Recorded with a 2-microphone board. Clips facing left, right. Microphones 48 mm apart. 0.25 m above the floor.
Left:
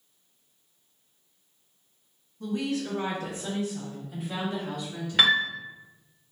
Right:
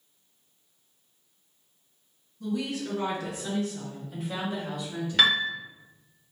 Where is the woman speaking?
50° left (ahead or behind), 1.3 m; by 5.4 s 25° right (ahead or behind), 1.3 m.